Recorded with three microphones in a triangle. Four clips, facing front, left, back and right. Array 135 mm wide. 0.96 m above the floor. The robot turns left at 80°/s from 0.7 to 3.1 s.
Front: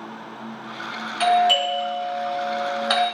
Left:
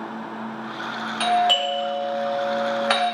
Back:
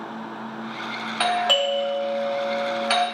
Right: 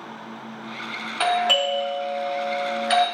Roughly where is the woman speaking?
No woman speaking in this recording.